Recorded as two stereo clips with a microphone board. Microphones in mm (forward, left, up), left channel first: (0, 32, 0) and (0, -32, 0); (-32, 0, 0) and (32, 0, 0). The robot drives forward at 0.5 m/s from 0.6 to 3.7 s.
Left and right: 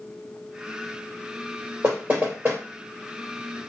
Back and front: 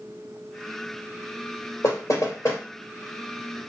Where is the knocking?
145° right, 2.5 m; by 2.6 s 150° right, 3 m.